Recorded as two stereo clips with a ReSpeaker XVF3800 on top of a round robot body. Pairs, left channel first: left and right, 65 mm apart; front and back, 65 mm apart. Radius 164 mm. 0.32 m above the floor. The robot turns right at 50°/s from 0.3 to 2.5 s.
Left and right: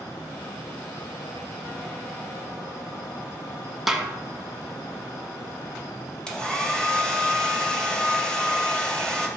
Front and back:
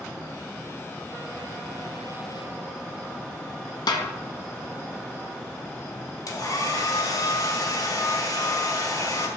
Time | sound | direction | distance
3.9 | a snare drum | 5° right | 1.1 m
6.3 | a hair dryer | 15° left | 2 m